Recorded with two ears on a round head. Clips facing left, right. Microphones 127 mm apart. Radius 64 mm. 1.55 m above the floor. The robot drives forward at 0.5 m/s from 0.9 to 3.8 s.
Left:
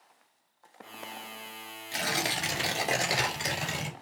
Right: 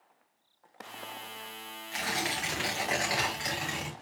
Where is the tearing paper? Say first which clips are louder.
Left 2 dB; 45° left (ahead or behind), 2.5 m; by 3.9 s 30° left (ahead or behind), 3 m.